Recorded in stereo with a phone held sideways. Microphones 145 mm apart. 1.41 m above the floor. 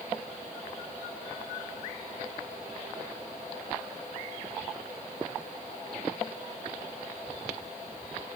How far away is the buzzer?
I don't hear a buzzer.